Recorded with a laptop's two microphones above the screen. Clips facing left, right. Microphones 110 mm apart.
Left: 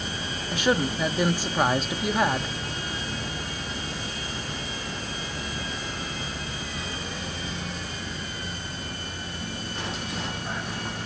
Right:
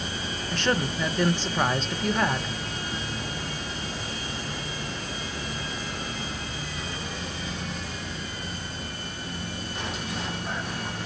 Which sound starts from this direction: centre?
A woman speaking, at 0.5 s.